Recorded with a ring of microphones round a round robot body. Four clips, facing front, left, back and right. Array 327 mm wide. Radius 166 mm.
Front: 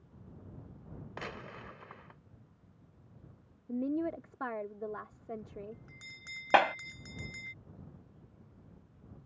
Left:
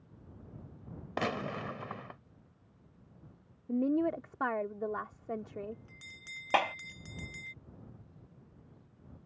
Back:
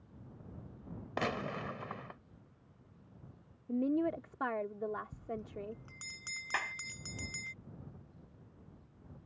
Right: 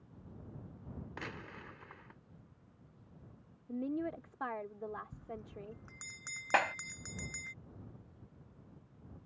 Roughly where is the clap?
Ahead.